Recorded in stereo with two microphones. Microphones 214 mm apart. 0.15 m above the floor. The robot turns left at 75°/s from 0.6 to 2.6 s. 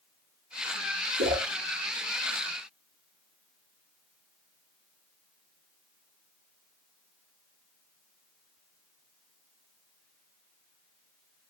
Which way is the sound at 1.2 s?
65° right (ahead or behind).